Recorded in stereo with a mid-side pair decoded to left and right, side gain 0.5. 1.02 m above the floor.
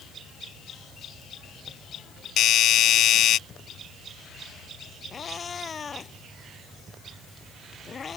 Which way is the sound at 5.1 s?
35° left.